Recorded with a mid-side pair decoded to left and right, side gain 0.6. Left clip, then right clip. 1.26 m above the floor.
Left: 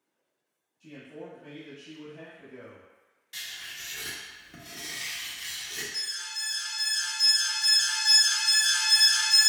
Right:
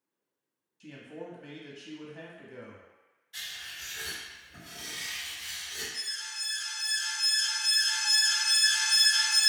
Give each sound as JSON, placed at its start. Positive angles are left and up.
{"t": 0.8, "sound": "a man speaking", "azimuth_deg": -55, "distance_m": 1.3}
{"t": 3.3, "sound": "writing", "azimuth_deg": 65, "distance_m": 1.3}
{"t": 5.9, "sound": "an alarm", "azimuth_deg": 50, "distance_m": 1.3}